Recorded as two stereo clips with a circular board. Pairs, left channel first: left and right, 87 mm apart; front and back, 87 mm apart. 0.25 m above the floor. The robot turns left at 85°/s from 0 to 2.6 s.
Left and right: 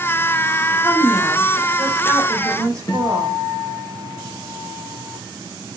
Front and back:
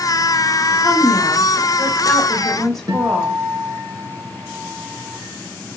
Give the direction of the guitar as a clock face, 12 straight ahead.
7 o'clock.